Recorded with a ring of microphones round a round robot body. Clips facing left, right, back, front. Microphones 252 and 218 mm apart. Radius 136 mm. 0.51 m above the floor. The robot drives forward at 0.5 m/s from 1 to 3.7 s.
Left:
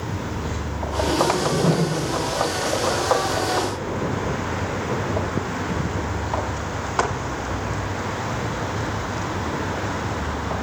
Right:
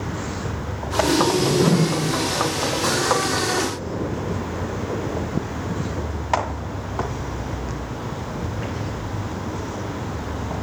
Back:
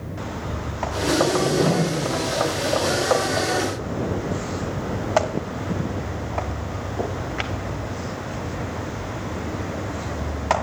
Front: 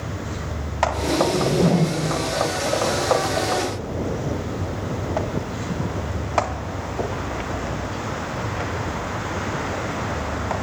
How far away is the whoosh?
About 4 m.